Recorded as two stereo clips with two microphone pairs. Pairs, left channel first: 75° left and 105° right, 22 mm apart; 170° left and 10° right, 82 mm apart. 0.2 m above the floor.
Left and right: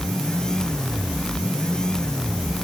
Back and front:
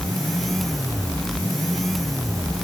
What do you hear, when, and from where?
Only background noise.